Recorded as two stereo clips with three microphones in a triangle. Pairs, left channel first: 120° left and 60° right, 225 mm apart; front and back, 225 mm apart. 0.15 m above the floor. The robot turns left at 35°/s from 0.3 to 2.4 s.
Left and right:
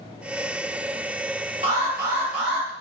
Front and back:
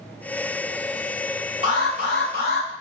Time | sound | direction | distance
1.6 | an alarm | 115° right | 5 m